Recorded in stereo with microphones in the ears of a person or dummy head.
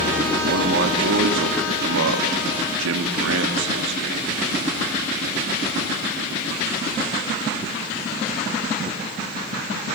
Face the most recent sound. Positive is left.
turn(degrees=-50)  # may be behind; listen again after turning